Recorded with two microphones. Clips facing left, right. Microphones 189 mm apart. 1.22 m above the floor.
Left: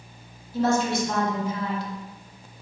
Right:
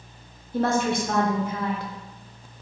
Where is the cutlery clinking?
No cutlery clinking in this recording.